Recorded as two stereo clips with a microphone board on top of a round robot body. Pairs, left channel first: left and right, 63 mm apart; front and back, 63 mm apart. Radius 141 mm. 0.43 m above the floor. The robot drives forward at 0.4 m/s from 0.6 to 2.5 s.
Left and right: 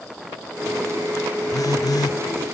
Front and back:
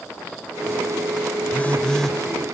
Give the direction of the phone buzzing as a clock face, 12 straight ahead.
10 o'clock.